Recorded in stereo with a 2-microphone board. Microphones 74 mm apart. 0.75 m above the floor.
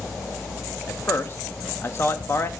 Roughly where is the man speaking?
Left.